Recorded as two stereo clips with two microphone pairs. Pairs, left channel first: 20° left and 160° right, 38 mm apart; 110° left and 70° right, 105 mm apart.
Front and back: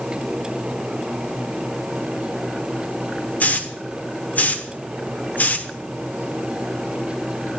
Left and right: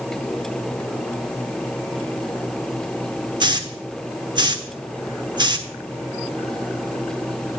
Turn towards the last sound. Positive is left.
turn(degrees=-25)